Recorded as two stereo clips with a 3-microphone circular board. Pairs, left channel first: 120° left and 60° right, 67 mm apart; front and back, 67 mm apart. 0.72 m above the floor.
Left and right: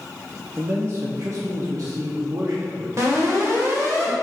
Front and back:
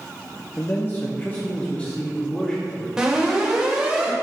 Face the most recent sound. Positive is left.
turn(degrees=-100)